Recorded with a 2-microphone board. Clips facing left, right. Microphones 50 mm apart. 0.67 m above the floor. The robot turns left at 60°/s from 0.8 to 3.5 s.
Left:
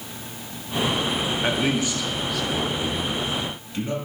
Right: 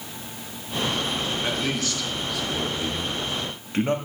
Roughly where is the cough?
No cough in this recording.